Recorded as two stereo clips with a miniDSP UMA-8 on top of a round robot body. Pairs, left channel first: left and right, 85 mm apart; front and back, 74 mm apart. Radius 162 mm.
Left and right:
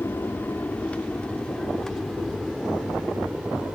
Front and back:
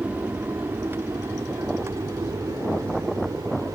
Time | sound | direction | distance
0.0 | an aircraft | 130° left | ?